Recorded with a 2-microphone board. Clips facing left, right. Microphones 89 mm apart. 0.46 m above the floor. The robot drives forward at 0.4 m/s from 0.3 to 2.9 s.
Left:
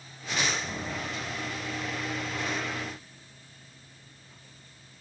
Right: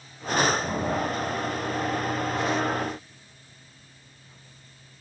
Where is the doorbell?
No doorbell in this recording.